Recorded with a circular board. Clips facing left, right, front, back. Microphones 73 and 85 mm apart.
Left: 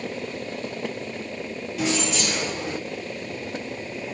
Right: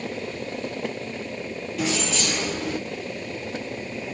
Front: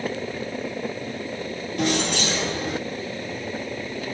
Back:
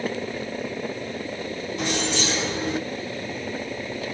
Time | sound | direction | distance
1.8 | keys jangling | 5° left | 1.7 m